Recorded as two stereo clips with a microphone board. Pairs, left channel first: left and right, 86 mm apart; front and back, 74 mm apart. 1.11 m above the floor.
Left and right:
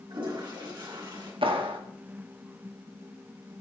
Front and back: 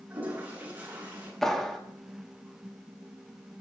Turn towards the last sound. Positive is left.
turn(degrees=-85)